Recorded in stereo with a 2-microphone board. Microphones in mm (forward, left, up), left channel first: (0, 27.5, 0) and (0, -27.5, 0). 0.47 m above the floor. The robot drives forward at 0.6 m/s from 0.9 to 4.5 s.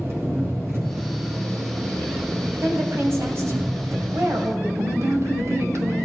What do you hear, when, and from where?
0.0 s an engine running: 50° right (ahead or behind), 4 m; by 6.0 s 75° right (ahead or behind), 3 m
2.6 s a woman speaking: 50° right (ahead or behind), 3 m; by 4.7 s 65° right (ahead or behind), 2.5 m
4.8 s a woman speaking: 55° right (ahead or behind), 2 m